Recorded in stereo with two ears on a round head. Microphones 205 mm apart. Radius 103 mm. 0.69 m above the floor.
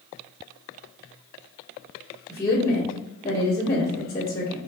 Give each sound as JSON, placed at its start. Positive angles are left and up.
{"t": 2.3, "sound": "a woman speaking", "side_deg": 10, "distance_m": 1.2}